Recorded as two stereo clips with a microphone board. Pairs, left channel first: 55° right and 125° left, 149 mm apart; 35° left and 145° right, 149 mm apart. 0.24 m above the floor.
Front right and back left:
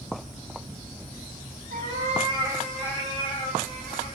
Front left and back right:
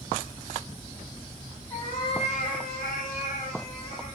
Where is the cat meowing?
105° left, 1.2 m; by 4.2 s 15° right, 2.5 m.